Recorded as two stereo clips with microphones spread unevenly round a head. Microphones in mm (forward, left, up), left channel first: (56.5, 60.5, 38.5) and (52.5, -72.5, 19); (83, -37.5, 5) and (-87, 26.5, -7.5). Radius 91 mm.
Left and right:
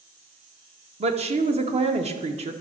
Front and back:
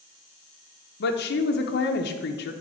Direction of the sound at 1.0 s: 55° right.